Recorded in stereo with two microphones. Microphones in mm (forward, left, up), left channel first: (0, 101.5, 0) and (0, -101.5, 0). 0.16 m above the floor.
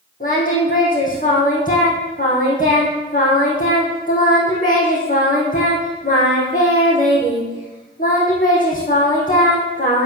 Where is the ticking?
I don't hear ticking.